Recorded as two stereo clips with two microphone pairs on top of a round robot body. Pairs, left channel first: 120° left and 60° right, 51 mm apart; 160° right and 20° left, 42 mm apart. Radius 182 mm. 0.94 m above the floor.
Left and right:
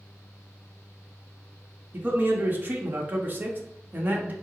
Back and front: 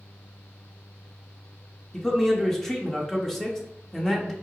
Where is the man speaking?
85° right, 1.1 m.